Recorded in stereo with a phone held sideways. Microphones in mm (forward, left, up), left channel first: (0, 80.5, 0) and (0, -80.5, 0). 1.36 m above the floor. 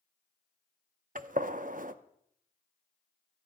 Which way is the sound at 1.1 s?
55° right (ahead or behind).